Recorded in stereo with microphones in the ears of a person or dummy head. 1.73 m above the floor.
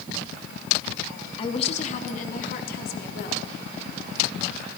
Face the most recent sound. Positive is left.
turn(degrees=65)  # may be behind; listen again after turning